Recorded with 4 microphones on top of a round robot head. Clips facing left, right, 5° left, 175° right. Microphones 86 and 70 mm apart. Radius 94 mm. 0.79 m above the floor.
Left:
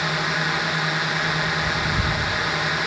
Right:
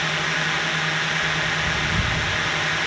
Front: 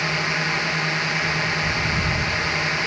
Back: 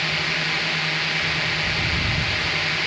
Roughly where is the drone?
Ahead left.